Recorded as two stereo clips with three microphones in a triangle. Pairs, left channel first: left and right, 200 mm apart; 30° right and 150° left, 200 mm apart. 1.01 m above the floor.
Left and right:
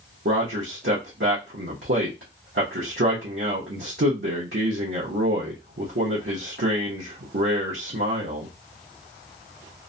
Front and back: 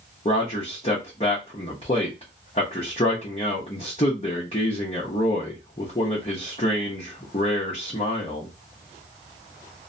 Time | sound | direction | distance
0.2 | a man speaking | 90° right | 0.8 m